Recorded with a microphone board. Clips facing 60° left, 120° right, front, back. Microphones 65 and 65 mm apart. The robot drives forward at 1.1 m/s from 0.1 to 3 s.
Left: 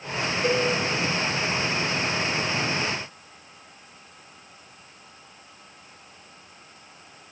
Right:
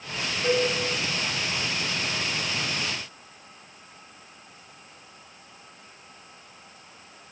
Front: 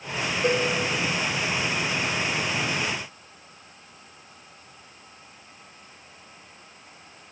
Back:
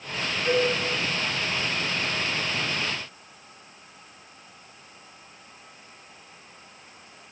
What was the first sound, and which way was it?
A cowbell, straight ahead.